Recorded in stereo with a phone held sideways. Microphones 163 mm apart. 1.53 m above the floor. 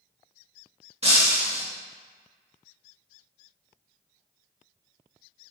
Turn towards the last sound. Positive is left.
turn(degrees=-40)  # may be behind; listen again after turning